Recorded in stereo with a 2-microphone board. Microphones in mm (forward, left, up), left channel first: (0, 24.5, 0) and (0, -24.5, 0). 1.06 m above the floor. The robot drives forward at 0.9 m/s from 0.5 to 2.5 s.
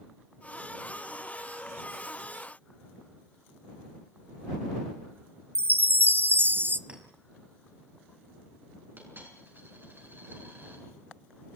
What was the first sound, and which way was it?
A chime, 45° right (ahead or behind).